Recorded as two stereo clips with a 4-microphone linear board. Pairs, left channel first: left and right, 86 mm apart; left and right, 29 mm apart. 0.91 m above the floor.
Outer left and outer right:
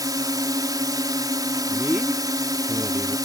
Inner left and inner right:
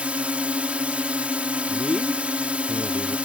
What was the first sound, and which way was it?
A drone, 50° right (ahead or behind).